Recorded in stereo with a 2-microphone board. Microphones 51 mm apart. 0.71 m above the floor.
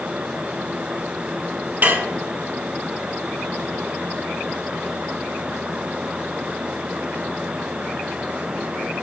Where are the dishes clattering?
35° right (ahead or behind), 0.8 m.